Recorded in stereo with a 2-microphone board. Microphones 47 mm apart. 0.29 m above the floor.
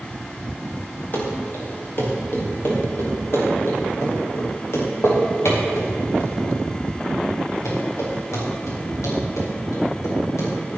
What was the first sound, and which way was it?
Running footsteps, 40° left (ahead or behind).